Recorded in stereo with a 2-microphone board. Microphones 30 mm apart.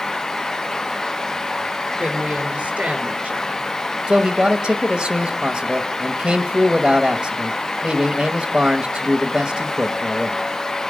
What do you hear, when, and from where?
2.0 s a woman speaking: 35° right (ahead or behind), 4 m
4.1 s a man speaking: 25° right (ahead or behind), 0.9 m